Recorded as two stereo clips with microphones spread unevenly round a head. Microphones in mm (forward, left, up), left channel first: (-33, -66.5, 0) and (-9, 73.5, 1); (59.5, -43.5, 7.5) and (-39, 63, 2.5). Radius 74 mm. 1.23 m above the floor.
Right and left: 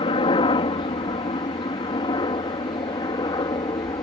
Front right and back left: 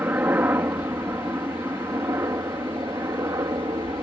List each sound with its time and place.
0.0 s a helicopter: 150° right; by 4.0 s 160° right